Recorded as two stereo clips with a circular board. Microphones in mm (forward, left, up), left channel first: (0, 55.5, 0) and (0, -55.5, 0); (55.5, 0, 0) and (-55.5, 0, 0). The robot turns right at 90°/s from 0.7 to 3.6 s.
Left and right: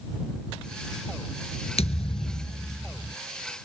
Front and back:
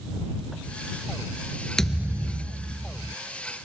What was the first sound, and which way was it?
A thud, 85° left.